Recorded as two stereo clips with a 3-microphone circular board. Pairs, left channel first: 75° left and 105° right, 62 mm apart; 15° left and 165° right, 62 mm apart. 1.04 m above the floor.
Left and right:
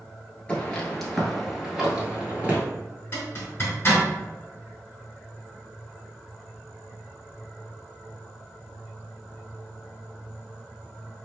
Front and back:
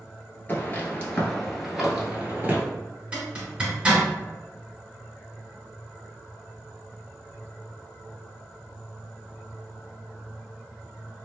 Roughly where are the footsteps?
Ahead.